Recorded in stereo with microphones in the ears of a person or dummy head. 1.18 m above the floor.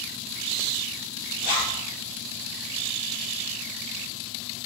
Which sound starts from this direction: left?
A zipper, at 1.4 s.